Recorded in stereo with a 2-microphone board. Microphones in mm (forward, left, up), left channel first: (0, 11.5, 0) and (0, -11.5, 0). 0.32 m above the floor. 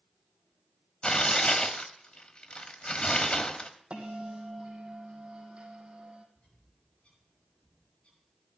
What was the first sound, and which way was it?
Tearing paper, 40° left (ahead or behind).